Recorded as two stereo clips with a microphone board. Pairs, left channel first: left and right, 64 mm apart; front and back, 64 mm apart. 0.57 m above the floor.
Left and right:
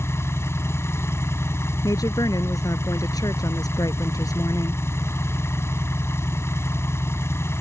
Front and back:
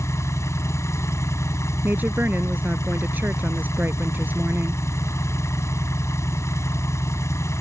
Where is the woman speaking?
115° left.